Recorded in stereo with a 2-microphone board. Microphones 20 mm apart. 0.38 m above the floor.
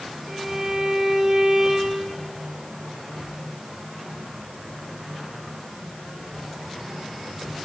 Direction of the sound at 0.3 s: 10° right (ahead or behind).